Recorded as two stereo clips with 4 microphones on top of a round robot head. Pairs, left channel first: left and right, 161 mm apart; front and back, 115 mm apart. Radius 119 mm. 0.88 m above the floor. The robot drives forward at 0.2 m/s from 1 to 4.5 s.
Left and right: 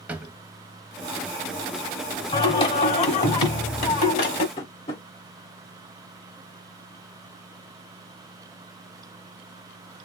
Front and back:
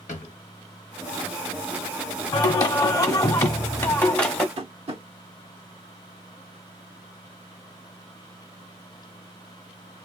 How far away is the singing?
About 0.9 m.